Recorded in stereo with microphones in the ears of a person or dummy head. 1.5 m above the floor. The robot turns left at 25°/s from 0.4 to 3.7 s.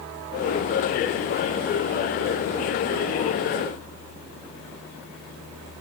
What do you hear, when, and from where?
Only background noise.